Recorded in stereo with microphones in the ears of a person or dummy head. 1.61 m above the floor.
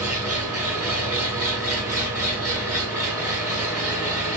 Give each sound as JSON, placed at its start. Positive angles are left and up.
{"t": 0.0, "sound": "an engine running", "side_deg": -15, "distance_m": 1.9}